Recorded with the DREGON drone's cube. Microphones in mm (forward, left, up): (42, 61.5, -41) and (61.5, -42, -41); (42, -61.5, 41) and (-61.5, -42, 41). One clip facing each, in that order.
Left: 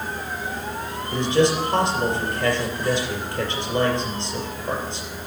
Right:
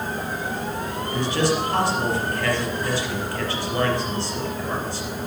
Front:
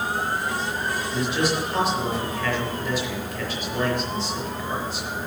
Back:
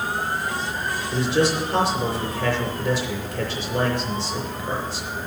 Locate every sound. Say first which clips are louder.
1.1 s a man speaking: left 4 dB, back 5 dB; 165° left, 4 m